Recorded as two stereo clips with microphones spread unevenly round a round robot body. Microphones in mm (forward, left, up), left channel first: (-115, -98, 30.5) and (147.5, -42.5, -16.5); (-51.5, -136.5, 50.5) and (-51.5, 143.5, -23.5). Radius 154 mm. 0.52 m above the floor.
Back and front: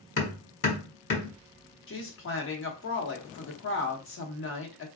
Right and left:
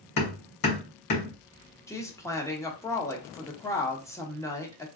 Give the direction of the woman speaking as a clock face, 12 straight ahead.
6 o'clock.